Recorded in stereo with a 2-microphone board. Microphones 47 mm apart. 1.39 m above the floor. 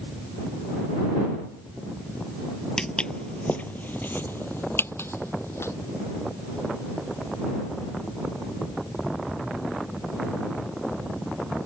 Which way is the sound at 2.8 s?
15° left (ahead or behind).